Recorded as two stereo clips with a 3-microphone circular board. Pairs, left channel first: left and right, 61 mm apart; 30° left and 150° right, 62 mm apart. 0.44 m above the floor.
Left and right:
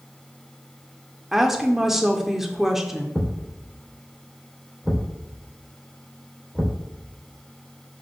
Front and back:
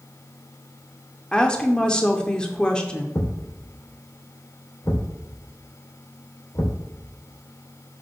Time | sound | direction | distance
1.3 | a woman speaking | 15° right | 0.7 m
3.1 | a thud | straight ahead | 1.8 m